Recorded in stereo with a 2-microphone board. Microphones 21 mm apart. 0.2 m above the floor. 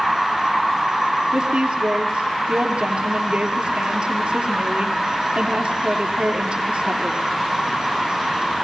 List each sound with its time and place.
1.3 s a woman speaking: 65° right (ahead or behind), 4 m